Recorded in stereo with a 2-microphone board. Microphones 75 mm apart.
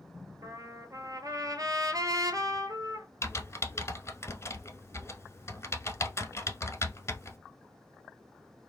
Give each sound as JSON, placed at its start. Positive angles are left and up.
{"t": 0.4, "sound": "a trumpet", "side_deg": -60, "distance_m": 0.8}
{"t": 3.2, "sound": "typing on a keyboard", "side_deg": 40, "distance_m": 0.8}